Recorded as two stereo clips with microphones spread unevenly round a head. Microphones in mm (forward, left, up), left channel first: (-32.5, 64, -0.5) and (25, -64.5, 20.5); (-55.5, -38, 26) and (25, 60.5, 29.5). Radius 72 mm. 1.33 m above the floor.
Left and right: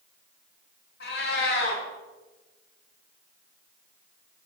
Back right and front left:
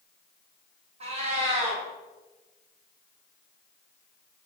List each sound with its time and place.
1.0 s a cat meowing: 95° left, 3.5 m